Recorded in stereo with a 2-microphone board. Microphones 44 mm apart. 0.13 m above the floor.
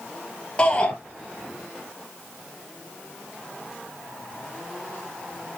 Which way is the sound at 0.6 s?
25° left (ahead or behind).